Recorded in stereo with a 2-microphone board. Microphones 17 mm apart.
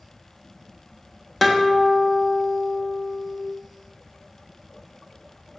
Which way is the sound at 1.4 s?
10° left (ahead or behind).